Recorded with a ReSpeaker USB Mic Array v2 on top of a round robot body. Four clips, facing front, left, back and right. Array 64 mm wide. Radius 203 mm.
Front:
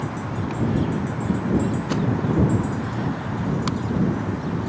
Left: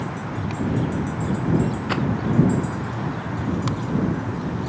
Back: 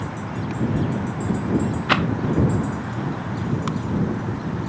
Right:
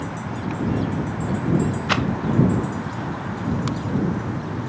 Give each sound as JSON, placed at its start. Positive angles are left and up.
{"t": 1.9, "sound": "a rattle", "azimuth_deg": -165}